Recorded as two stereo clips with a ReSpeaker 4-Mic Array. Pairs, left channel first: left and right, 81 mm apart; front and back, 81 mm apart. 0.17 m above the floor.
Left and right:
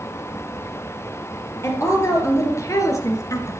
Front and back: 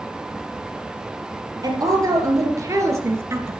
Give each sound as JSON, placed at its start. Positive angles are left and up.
{"t": 1.6, "sound": "a woman speaking", "azimuth_deg": 140, "distance_m": 3.5}